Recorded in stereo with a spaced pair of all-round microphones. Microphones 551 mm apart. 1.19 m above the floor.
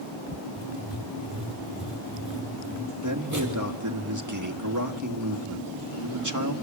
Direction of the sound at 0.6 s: 30° right (ahead or behind).